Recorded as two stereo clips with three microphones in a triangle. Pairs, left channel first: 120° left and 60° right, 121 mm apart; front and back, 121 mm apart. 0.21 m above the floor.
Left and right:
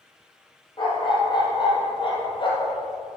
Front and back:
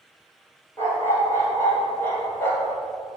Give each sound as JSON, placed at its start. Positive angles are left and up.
{"t": 0.8, "sound": "a dog barking", "azimuth_deg": 70, "distance_m": 4.0}